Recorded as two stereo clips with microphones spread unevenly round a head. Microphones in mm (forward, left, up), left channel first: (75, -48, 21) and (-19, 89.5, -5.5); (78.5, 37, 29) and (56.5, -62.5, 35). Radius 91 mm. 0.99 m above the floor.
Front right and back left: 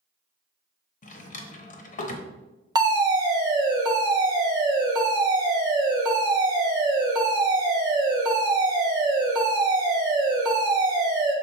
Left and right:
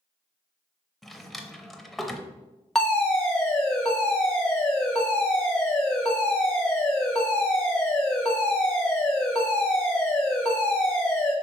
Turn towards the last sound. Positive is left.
turn(degrees=155)